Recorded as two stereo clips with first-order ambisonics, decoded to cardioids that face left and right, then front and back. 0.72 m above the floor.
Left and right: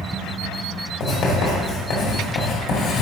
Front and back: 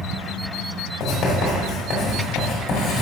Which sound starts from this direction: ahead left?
Writing, at 1.0 s.